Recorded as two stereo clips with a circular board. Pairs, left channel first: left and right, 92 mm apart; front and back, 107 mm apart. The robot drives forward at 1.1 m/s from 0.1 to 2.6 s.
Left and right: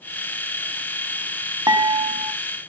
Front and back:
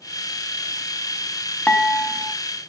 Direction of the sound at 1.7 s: 75° right.